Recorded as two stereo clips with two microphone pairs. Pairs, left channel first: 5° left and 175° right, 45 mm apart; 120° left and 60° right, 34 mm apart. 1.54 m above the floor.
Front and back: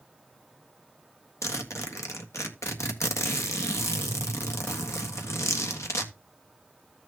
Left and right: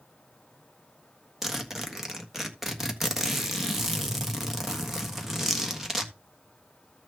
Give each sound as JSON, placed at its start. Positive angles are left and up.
{"t": 1.4, "sound": "a zipper", "azimuth_deg": 20, "distance_m": 1.4}